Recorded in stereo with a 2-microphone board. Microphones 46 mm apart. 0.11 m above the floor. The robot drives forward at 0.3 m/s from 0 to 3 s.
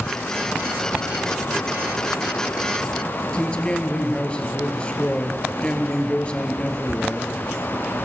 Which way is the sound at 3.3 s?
25° left (ahead or behind).